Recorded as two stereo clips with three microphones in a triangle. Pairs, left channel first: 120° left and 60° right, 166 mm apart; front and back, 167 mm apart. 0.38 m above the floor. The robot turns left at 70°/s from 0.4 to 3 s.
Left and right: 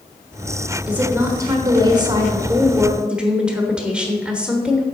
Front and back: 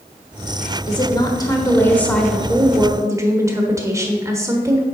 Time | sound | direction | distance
0.9 | a woman speaking | 15° left | 1.0 m